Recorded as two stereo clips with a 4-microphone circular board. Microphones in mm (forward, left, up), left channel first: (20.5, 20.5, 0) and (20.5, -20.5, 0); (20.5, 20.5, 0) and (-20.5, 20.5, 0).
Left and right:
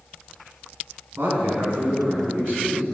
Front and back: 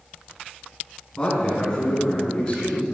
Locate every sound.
1.2 s a man speaking: 70° right, 6.5 m; by 2.9 s 65° right, 7.5 m